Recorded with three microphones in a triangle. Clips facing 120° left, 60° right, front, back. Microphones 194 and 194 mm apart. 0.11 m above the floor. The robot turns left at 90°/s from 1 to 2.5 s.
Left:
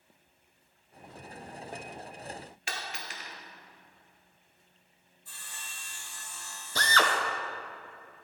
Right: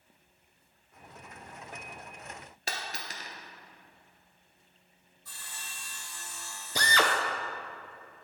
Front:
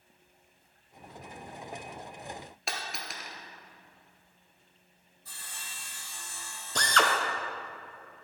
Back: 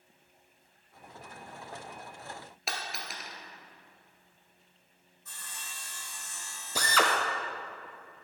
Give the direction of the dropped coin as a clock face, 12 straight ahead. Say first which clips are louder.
Right 2 dB, even; 3 o'clock.